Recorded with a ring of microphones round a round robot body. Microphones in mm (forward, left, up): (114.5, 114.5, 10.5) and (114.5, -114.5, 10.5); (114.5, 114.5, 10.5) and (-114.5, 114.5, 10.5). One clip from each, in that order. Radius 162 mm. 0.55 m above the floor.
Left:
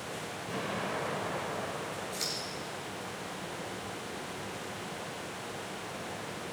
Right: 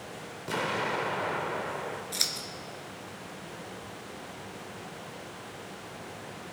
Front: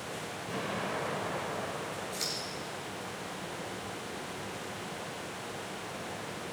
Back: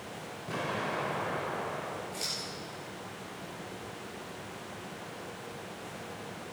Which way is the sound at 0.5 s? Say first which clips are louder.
Right 6 dB, back 2 dB; 100° right.